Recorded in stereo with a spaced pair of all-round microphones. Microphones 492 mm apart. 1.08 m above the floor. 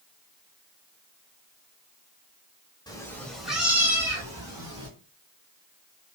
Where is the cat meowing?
10° left (ahead or behind), 0.8 m; by 4.9 s 10° right (ahead or behind), 2 m.